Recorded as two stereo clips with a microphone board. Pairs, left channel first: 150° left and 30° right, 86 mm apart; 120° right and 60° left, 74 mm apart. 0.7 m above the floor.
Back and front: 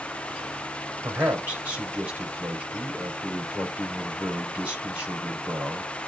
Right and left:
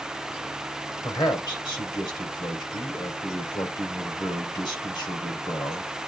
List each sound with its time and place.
1.0 s a man speaking: 100° right, 3 m